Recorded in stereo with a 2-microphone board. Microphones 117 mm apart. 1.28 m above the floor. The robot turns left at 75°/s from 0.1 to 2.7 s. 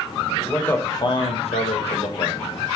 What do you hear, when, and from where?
0.4 s a man speaking: 175° right, 0.7 m; by 2.4 s 30° left, 0.7 m